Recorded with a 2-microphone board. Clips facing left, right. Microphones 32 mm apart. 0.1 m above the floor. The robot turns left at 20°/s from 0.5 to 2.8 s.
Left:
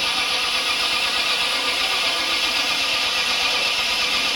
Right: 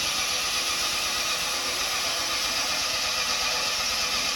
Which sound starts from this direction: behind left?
An engine running, at 0.0 s.